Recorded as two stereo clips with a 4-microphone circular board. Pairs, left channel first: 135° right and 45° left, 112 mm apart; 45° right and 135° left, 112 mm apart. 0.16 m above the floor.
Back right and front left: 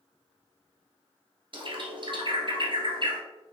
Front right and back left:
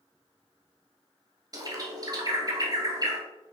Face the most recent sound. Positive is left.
turn(degrees=85)